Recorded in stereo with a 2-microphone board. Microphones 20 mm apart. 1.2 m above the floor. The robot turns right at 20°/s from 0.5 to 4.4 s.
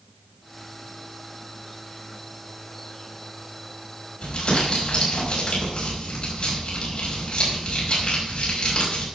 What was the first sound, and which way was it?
Crumpling, 60° left (ahead or behind).